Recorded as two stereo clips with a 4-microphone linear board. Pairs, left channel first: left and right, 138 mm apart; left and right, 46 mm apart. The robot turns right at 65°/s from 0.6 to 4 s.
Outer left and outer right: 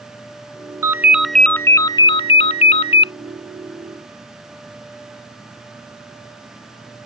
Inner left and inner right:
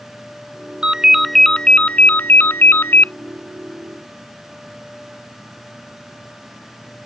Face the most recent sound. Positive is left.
turn(degrees=175)